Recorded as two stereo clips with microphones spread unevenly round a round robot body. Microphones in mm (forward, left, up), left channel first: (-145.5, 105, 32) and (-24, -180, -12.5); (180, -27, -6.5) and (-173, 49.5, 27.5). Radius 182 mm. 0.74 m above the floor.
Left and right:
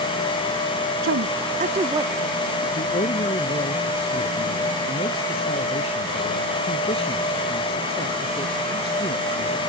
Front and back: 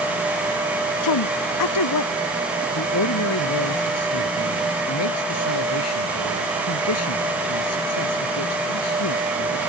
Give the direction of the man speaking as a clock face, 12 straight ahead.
11 o'clock.